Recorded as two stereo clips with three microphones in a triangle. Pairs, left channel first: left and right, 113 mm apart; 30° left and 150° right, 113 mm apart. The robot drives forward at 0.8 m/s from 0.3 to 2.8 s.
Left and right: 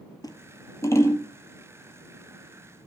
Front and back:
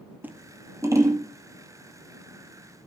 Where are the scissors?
140° left, 1.3 m; by 1.2 s 155° left, 1.9 m.